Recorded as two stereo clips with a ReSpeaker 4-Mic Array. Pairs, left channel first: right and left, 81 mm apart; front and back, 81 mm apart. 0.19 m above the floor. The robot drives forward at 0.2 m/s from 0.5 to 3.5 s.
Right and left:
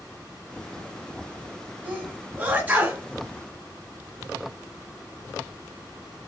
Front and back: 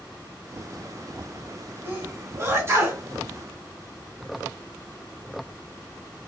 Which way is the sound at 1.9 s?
140° left.